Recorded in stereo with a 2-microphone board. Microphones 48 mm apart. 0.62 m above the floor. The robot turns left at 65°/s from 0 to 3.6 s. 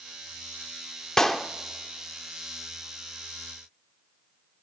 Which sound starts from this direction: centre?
A clap, at 1.2 s.